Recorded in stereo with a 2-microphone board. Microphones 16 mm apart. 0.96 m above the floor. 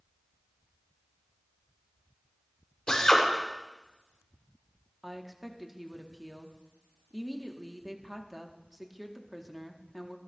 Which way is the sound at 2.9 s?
70° left (ahead or behind).